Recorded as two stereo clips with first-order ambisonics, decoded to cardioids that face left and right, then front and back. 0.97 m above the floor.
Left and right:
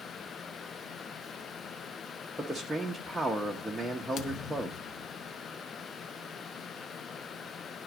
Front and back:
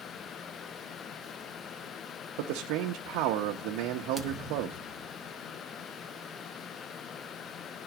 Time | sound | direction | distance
2.4 | a man speaking | 170° right | 0.7 m
4.2 | a thud | 95° left | 0.5 m